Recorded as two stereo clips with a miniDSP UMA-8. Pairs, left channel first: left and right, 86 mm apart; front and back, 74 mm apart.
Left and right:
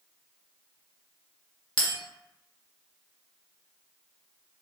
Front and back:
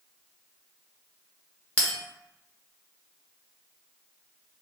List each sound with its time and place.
1.8 s a bell: 70° left, 1.0 m